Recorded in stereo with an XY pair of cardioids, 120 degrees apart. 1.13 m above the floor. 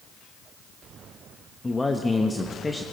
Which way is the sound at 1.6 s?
15° left.